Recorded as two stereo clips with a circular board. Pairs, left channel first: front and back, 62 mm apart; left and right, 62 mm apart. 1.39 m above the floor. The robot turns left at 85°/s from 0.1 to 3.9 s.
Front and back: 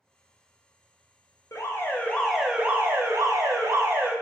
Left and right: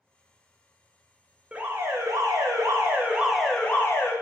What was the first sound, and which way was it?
An alarm, 20° right.